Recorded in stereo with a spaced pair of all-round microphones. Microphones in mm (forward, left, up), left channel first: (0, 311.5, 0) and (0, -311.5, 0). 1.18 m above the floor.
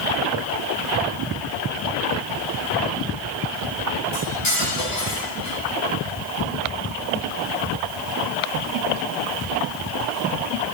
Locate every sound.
4.1 s cutlery clinking: 75° left (ahead or behind), 7 m